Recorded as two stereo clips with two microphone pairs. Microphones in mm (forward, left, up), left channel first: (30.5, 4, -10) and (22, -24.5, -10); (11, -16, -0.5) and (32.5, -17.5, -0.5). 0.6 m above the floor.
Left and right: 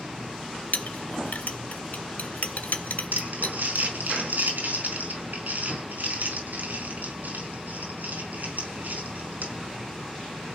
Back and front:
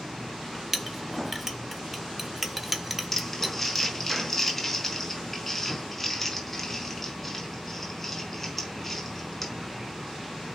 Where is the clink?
75° left, 1.5 m.